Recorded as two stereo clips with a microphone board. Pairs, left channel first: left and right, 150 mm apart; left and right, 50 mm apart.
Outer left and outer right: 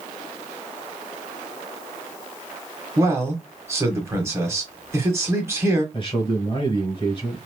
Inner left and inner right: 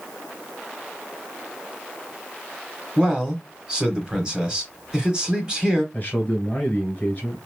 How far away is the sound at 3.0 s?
About 1.1 m.